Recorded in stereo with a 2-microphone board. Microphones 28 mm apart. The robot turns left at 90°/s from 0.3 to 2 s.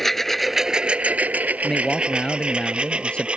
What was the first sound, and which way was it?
A lawn mower, 10° left (ahead or behind).